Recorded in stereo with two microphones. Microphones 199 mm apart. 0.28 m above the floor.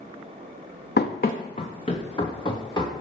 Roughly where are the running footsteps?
Left.